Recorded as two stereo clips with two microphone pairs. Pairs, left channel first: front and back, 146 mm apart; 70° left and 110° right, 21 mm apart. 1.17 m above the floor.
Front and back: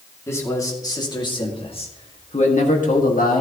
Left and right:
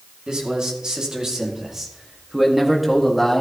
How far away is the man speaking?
About 2.5 m.